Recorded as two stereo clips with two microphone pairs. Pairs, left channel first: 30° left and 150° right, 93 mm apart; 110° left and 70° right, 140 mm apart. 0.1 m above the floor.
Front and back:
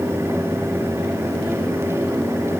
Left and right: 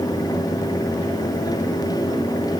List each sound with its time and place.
Only background noise.